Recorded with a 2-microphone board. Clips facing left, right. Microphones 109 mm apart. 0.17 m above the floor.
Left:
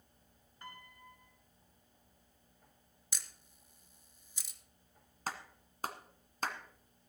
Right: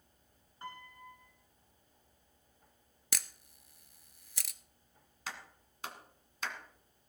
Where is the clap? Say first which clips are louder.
Left 4 dB; 40° left (ahead or behind), 1.6 m.